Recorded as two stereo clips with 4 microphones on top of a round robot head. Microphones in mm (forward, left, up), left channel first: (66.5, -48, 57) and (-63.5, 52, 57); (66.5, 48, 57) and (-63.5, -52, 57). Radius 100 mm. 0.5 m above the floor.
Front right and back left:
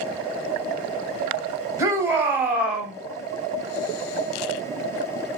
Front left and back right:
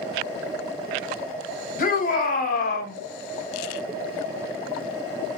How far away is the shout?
About 1.9 m.